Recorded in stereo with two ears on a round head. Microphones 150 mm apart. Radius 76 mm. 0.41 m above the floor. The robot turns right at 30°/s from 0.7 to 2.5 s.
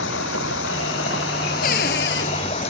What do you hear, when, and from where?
0.0 s running water: 85° left; by 2.7 s 140° left
1.6 s a cupboard door: 50° left (ahead or behind); by 2.3 s 70° left (ahead or behind)